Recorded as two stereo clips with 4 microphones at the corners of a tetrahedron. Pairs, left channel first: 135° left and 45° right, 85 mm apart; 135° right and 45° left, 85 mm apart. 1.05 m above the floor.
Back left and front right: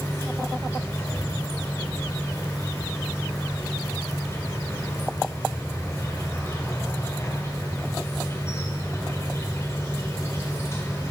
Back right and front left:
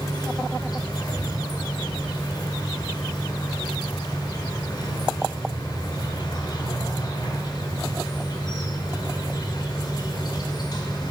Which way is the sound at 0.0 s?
165° right.